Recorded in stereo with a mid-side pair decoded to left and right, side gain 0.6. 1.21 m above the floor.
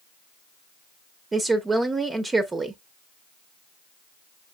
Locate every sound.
1.3 s a woman speaking: 20° right, 0.9 m